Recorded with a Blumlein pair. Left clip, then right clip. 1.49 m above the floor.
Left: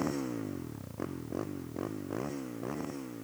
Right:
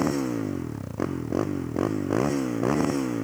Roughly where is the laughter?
No laughter in this recording.